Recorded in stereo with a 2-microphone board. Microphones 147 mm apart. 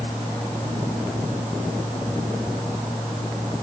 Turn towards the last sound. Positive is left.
No sound to turn to.